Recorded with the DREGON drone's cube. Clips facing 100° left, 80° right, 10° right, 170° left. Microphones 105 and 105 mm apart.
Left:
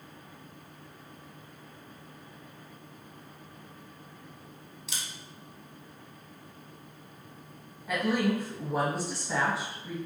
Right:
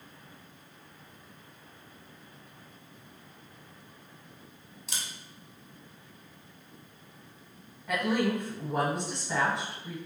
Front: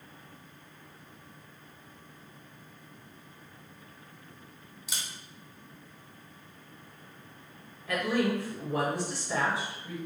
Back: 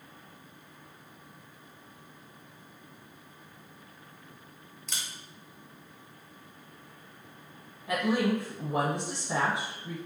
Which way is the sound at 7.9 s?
Straight behind.